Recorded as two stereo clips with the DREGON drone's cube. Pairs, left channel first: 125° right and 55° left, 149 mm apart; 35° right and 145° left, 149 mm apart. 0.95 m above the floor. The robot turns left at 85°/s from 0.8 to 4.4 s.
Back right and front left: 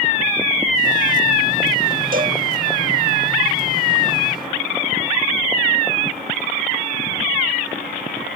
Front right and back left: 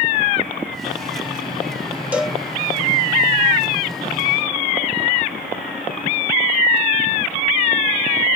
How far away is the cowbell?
About 1.0 m.